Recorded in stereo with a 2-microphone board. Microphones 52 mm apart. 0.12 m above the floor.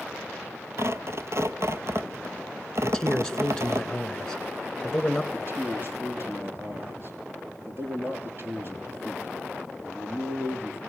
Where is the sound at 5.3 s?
45° right (ahead or behind), 3 m.